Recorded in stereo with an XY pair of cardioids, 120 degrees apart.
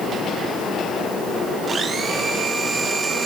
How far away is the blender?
About 2 m.